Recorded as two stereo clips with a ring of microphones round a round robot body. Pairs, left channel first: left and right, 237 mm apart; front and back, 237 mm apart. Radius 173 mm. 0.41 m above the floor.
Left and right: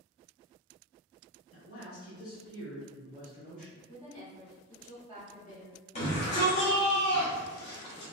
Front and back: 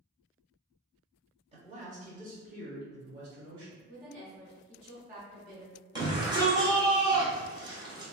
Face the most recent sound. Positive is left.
turn(degrees=125)